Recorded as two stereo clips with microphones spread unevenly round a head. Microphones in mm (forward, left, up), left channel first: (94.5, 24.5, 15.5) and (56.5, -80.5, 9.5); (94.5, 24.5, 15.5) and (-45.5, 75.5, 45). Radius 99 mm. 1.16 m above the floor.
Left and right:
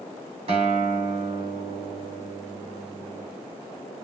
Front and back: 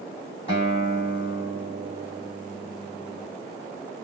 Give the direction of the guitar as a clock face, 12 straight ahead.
3 o'clock.